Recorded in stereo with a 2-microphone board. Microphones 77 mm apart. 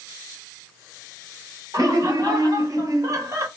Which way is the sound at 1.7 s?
55° right (ahead or behind).